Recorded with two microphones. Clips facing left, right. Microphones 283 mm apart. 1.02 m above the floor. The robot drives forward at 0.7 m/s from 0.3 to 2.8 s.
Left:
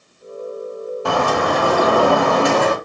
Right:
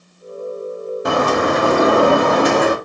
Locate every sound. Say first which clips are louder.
1.1 s a bird: right 2 dB; 20° right (ahead or behind), 0.9 m; by 2.8 s 15° right (ahead or behind), 1.1 m